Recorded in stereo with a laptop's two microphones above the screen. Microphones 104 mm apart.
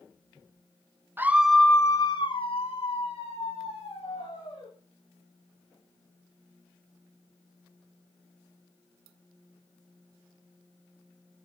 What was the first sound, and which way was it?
A scream, 20° right (ahead or behind).